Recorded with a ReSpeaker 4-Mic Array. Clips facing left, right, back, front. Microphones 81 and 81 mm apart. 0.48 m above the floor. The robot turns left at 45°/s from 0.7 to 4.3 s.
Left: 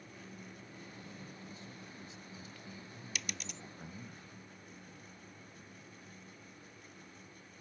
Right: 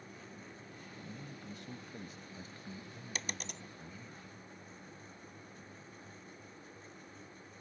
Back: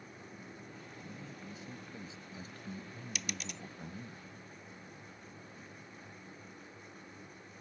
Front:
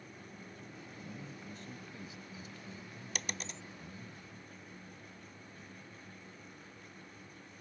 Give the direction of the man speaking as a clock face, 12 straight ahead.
2 o'clock.